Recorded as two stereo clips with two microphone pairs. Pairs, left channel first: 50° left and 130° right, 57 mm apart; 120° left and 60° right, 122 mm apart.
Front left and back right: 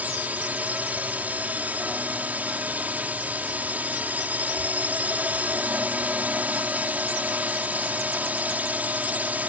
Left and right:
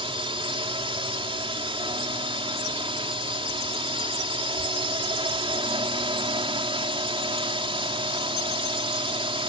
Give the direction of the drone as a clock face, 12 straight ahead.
3 o'clock.